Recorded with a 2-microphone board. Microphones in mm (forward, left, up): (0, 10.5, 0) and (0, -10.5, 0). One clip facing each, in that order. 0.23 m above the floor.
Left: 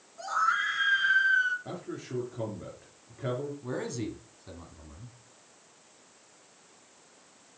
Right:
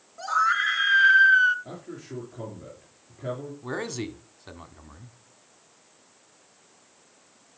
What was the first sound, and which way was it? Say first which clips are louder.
A scream: right 5 dB; 25° right (ahead or behind).